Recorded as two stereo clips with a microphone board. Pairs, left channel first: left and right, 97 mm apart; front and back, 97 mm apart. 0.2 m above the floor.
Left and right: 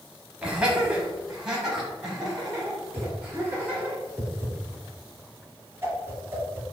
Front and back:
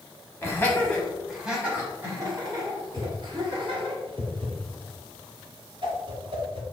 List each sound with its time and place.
0.4 s laughter: 20° right, 1.2 m; by 4.0 s 175° right, 2 m
3.0 s a whoosh: 155° right, 1.6 m